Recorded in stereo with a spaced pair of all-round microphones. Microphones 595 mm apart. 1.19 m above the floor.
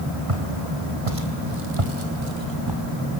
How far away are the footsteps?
About 3 m.